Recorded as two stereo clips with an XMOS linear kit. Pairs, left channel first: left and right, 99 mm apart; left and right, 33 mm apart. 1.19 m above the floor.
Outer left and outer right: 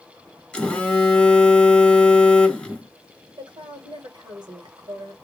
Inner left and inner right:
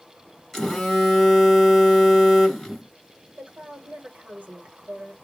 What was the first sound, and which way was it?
A phone buzzing, 10° left (ahead or behind).